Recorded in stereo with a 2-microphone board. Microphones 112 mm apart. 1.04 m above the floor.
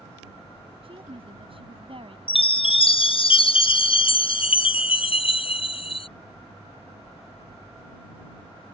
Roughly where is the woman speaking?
Right.